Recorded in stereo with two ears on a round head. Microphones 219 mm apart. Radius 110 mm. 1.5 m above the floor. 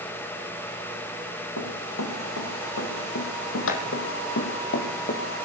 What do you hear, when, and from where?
1.6 s running footsteps: 65° left (ahead or behind), 3.5 m; by 5.2 s 40° left (ahead or behind), 2.0 m